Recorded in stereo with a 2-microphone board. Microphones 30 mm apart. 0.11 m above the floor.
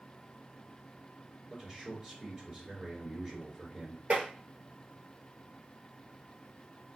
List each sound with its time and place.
1.5 s a man speaking: 20° right (ahead or behind), 1.8 m
4.1 s tapping: 45° right (ahead or behind), 1.5 m